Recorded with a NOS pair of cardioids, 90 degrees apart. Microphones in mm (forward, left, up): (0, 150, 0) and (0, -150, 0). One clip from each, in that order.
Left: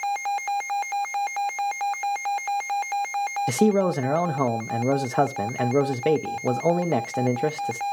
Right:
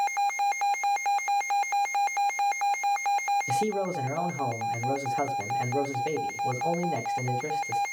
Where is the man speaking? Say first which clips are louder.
Left 6 dB; 70° left, 0.8 m.